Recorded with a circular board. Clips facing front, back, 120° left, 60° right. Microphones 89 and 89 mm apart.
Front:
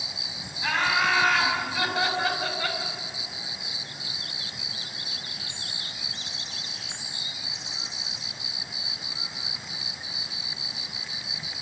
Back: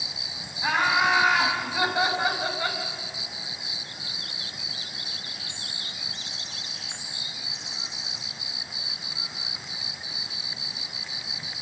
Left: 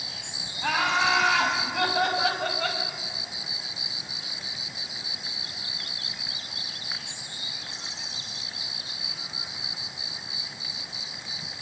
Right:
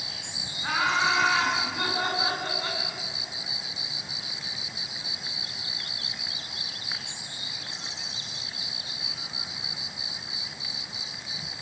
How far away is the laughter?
About 7 m.